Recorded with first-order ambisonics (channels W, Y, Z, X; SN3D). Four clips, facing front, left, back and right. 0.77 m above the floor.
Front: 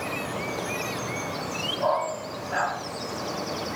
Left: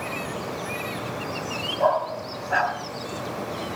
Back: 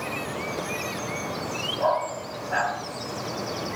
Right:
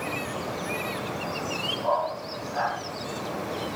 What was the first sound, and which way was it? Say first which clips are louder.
A dog barking: left 7 dB, back 1 dB; 95° left.